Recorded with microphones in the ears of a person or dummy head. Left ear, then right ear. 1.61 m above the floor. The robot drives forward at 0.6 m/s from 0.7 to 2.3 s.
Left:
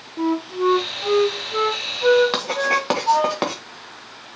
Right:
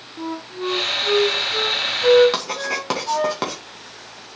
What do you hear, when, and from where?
0.2 s a flute: 80° left, 0.9 m; by 3.3 s 45° left (ahead or behind), 1.3 m
2.3 s writing: 15° left (ahead or behind), 2 m